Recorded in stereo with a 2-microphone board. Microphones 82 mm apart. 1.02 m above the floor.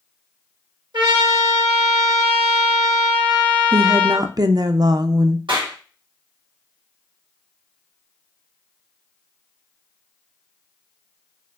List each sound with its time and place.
0.9 s a trumpet: 75° right (ahead or behind), 2.5 m
3.7 s a woman speaking: 50° right (ahead or behind), 0.5 m
5.5 s a clap: 85° right, 2.0 m